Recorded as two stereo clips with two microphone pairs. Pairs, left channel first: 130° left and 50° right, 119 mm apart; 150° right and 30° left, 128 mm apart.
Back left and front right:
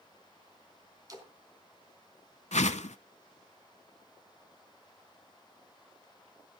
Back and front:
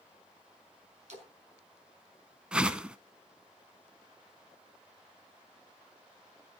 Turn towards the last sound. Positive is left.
turn(degrees=115)